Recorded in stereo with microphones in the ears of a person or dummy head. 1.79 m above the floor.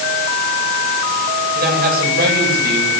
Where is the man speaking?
55° right (ahead or behind), 10 m.